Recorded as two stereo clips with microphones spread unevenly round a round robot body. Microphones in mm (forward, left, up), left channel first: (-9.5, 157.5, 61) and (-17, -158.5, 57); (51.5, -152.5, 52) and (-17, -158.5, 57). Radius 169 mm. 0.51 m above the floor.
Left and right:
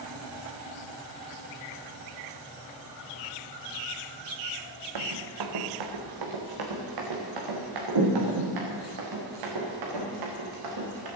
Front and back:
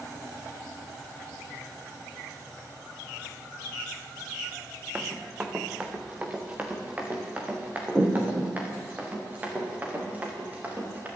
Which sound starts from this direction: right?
Running footsteps, at 5.0 s.